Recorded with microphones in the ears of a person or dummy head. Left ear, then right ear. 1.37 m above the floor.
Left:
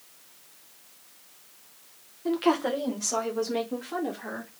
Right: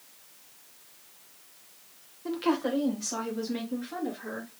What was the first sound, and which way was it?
A woman speaking, 5° left (ahead or behind).